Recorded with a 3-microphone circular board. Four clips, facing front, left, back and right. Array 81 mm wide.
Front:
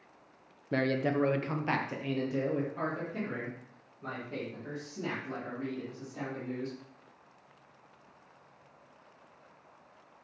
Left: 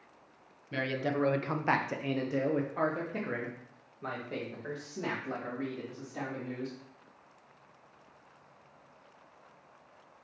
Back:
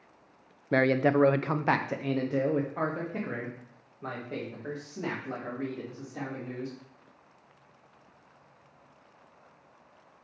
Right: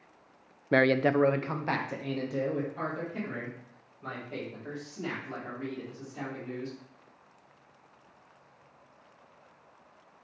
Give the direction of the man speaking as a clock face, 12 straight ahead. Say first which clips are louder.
Right 9 dB, back 6 dB; 4 o'clock.